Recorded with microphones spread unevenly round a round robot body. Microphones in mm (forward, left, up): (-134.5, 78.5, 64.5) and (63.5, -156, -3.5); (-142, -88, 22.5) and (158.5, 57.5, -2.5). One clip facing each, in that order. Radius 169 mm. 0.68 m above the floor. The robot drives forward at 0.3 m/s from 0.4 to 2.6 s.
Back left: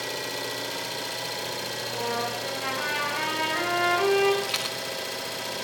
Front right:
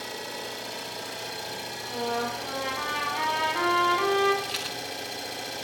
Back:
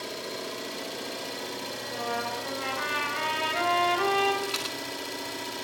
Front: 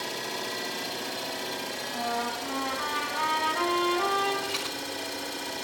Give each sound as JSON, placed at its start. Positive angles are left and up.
{"t": 0.0, "sound": "an engine running", "azimuth_deg": 110, "distance_m": 2.5}
{"t": 1.8, "sound": "a trumpet", "azimuth_deg": -175, "distance_m": 5.5}
{"t": 4.4, "sound": "a rattle", "azimuth_deg": 135, "distance_m": 2.5}